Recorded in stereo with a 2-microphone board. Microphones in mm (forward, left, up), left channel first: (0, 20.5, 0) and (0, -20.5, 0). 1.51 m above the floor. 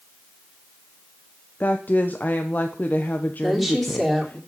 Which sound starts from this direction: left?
A woman speaking, at 1.6 s.